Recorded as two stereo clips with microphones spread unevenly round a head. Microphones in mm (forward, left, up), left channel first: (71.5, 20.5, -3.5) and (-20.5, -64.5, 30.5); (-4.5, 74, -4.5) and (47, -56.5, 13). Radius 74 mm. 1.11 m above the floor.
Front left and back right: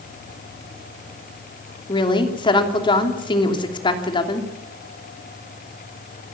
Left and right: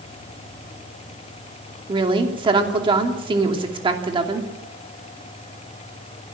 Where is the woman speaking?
10° right, 3 m.